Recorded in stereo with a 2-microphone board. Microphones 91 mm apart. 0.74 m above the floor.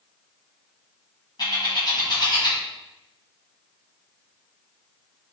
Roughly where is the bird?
Left.